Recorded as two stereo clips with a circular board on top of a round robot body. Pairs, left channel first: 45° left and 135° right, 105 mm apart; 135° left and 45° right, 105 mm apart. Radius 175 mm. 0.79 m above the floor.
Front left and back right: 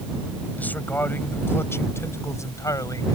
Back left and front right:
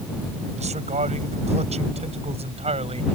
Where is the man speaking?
30° right; by 3.1 s 15° right.